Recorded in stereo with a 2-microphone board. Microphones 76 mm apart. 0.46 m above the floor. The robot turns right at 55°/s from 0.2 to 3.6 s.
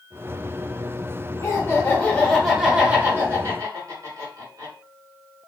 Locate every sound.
1.4 s laughter: 125° left, 1.2 m; by 4.7 s 115° right, 1.2 m